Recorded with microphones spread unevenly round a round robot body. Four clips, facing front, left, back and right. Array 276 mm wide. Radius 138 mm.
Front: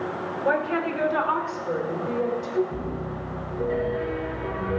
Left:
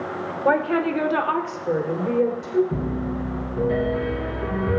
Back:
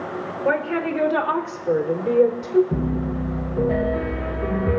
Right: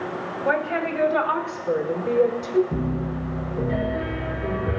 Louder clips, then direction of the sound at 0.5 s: Left 4 dB, back 2 dB; 100° left.